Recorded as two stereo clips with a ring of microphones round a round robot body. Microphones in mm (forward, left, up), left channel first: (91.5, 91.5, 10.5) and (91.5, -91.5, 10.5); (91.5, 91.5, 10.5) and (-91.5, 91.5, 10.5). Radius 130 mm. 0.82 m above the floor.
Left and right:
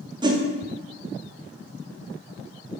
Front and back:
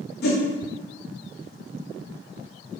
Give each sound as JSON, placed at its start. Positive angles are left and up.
{"t": 0.2, "sound": "a whoosh", "azimuth_deg": -25, "distance_m": 0.6}